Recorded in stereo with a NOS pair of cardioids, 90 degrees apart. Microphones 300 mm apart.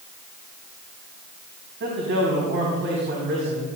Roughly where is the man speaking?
Ahead right.